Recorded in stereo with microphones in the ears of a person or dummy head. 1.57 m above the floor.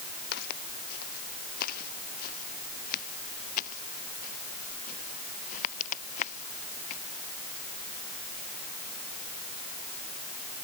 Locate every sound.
0.3 s footsteps: 55° left (ahead or behind); by 7.0 s 40° left (ahead or behind)